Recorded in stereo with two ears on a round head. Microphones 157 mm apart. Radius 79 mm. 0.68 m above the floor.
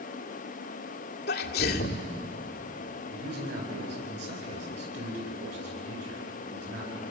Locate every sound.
1.3 s a sneeze: 60° left (ahead or behind), 2 m
3.1 s a man speaking: 70° right (ahead or behind), 9.5 m